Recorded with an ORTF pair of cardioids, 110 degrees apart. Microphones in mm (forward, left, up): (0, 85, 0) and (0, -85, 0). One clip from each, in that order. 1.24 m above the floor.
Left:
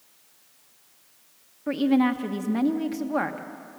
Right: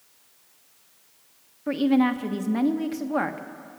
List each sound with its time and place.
1.7 s a woman speaking: 5° right, 1.1 m